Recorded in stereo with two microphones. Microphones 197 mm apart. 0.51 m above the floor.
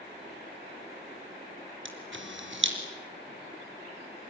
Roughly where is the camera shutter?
Right.